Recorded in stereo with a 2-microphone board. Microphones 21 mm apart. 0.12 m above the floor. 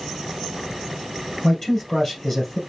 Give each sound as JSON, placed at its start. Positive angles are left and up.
{"t": 1.4, "sound": "a man speaking", "side_deg": 25, "distance_m": 2.5}